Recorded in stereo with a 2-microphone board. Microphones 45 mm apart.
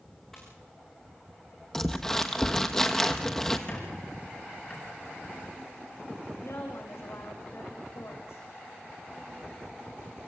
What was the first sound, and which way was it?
A splash, 10° left (ahead or behind).